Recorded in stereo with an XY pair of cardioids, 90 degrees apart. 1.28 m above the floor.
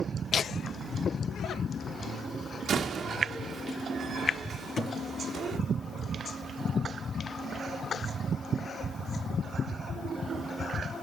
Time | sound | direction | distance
0.3 | laughter | 55° left | 0.6 m
2.7 | a door slam | 60° right | 2 m
4.8 | a thud | 50° left | 5 m